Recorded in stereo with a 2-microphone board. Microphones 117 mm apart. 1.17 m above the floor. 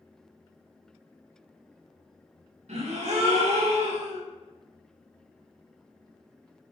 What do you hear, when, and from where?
2.7 s a gasp: 80° right, 1.0 m